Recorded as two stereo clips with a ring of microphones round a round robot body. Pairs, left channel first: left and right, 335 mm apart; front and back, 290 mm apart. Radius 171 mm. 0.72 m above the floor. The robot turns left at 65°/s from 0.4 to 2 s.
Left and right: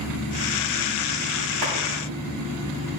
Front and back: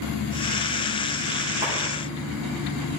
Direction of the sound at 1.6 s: 100° right.